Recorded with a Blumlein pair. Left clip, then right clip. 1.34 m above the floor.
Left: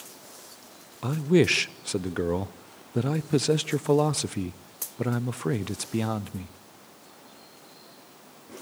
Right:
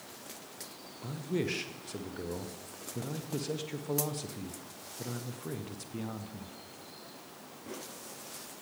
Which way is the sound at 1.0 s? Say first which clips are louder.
Left 13 dB; 55° left.